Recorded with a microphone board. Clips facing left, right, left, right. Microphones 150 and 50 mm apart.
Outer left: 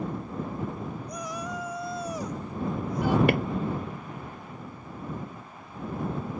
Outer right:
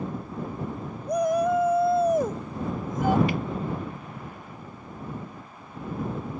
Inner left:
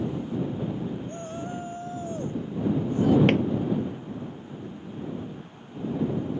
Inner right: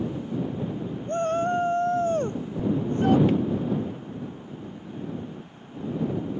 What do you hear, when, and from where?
1.1 s a shout: 55° right (ahead or behind); by 3.2 s 45° right (ahead or behind)
3.3 s a drawer: 65° left (ahead or behind)